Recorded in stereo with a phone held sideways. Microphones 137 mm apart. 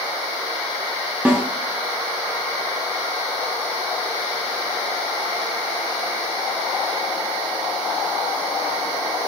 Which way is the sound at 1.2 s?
10° right (ahead or behind).